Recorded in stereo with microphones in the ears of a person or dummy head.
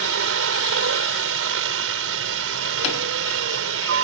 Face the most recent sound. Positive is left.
turn(degrees=-75)  # may be behind; listen again after turning